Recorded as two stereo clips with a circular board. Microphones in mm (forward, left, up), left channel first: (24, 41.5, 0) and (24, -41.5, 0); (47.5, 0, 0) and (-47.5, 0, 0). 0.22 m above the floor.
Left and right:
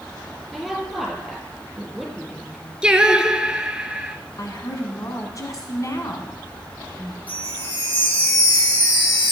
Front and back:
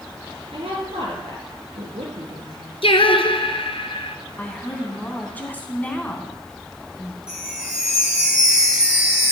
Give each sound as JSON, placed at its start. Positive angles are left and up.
{"t": 0.5, "sound": "a woman speaking", "azimuth_deg": 180, "distance_m": 4.5}
{"t": 2.8, "sound": "singing", "azimuth_deg": -10, "distance_m": 0.9}
{"t": 4.4, "sound": "a woman speaking", "azimuth_deg": 65, "distance_m": 2.0}
{"t": 7.3, "sound": "a chime", "azimuth_deg": 100, "distance_m": 2.5}